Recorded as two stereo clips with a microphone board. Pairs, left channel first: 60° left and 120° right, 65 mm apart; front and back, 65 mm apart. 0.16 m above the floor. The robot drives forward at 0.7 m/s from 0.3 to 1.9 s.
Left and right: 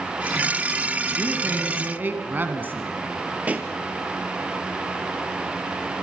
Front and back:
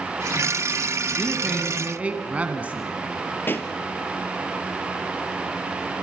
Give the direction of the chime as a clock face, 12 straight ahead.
No chime in this recording.